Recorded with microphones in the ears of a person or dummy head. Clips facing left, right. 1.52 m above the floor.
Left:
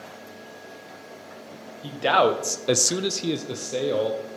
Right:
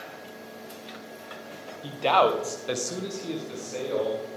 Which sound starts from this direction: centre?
A man speaking, at 1.8 s.